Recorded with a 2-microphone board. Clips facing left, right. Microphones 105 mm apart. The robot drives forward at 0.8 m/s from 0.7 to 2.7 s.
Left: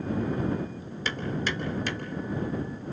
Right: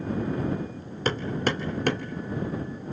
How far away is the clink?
No clink in this recording.